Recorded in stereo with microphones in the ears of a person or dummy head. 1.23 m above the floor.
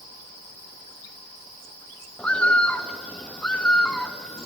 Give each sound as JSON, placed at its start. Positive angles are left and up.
{"t": 2.2, "sound": "a bird", "side_deg": 5, "distance_m": 0.7}